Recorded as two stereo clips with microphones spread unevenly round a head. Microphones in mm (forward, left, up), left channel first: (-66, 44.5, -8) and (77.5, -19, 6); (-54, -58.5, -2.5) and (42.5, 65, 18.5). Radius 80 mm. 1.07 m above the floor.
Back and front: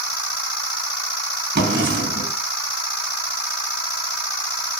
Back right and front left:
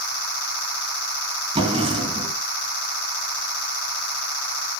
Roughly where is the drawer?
Ahead.